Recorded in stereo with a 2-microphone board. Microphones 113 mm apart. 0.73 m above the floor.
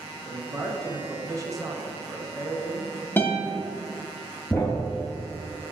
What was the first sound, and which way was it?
A man speaking, 30° right (ahead or behind).